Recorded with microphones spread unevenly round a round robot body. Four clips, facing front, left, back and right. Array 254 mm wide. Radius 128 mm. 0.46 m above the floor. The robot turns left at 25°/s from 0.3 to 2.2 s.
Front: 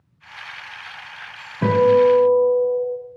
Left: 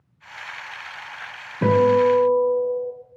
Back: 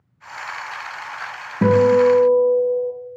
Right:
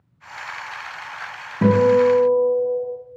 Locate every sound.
1.6 s a guitar: 150° right, 3.5 m; by 2.9 s 160° right, 3.5 m